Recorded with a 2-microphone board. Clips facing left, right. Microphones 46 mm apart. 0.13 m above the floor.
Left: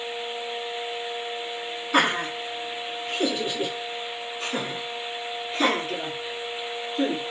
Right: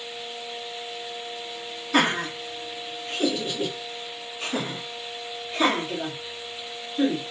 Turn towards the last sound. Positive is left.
turn(degrees=10)  # may be behind; listen again after turning